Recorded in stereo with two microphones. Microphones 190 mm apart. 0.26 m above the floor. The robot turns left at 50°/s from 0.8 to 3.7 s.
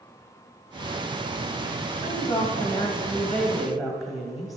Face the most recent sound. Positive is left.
turn(degrees=0)  # may be behind; listen again after turning